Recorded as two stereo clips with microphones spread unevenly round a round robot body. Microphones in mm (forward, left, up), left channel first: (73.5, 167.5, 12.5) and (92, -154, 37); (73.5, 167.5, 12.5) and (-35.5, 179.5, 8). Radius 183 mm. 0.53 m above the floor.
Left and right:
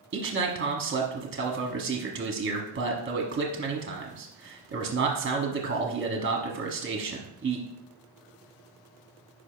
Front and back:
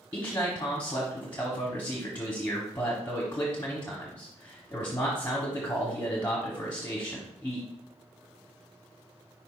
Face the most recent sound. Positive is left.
turn(degrees=-70)